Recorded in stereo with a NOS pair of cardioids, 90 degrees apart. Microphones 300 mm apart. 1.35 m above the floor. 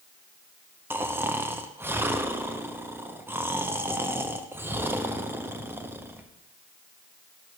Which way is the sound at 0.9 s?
10° right.